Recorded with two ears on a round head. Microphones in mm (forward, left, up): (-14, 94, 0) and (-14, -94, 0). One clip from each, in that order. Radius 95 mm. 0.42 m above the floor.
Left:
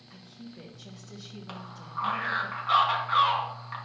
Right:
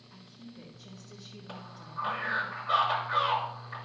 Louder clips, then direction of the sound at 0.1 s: Left 4 dB; 60° left (ahead or behind).